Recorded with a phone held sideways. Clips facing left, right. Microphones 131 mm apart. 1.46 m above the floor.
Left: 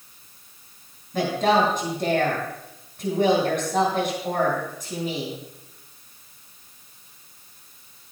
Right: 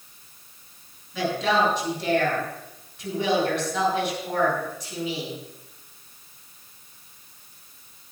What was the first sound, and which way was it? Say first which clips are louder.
A woman speaking: left 3 dB; 50° left (ahead or behind).